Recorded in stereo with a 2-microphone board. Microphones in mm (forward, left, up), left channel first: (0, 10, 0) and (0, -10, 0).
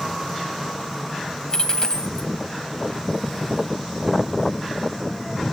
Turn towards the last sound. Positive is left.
turn(degrees=30)  # may be behind; listen again after turning